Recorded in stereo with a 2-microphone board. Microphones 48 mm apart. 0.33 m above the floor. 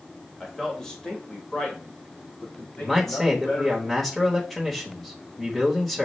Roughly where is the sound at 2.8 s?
Centre.